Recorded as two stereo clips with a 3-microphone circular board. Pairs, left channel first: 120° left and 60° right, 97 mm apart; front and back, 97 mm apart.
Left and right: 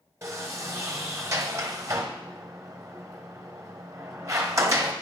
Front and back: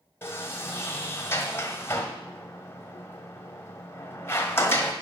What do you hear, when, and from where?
0.2 s a sliding door: 40° right, 1.5 m